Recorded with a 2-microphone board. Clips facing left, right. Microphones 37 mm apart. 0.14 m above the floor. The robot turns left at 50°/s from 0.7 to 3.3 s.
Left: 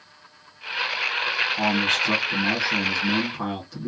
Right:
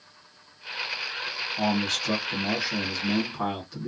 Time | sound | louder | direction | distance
1.6 | a man speaking | left 1 dB | 90° left | 1.7 m